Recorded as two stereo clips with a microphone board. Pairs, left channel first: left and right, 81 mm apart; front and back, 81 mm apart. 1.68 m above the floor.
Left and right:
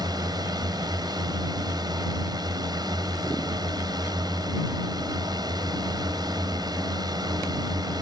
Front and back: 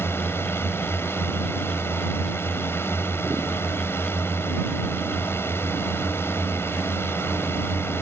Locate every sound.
0.0 s a drone: 60° right